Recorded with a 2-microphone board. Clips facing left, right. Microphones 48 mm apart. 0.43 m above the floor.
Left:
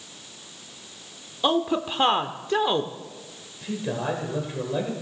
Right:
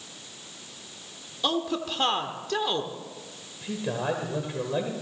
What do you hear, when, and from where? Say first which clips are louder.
1.4 s a woman speaking: left 5 dB; 20° left (ahead or behind), 0.7 m
3.6 s a man speaking: left 1 dB; 5° right (ahead or behind), 1.9 m